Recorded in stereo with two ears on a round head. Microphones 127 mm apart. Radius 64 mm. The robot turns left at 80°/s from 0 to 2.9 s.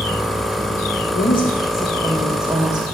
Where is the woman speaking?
100° left, 2 m; by 2.9 s 40° right, 2 m.